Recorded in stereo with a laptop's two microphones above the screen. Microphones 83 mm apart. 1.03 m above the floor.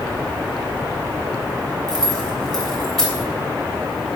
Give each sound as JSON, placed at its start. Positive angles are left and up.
{"t": 1.9, "sound": "keys jangling", "side_deg": 5, "distance_m": 3.0}